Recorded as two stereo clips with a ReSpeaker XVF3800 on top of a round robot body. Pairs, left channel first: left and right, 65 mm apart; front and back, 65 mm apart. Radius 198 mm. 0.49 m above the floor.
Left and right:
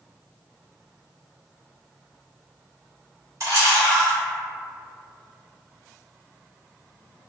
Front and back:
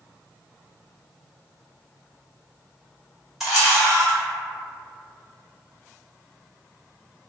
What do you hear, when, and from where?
3.4 s a camera shutter: 95° right, 1.8 m